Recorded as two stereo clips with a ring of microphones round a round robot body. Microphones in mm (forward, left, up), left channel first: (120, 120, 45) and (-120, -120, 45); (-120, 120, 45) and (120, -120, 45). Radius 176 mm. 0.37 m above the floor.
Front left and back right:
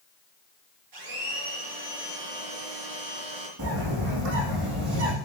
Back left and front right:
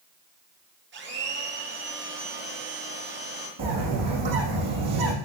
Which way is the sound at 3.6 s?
95° right.